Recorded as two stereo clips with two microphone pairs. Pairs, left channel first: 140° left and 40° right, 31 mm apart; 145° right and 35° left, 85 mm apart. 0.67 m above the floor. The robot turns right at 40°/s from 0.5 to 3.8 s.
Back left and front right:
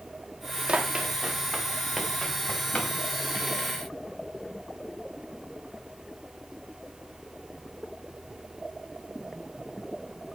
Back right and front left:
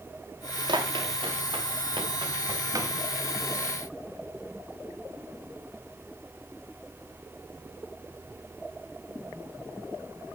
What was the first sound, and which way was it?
Running footsteps, 10° left.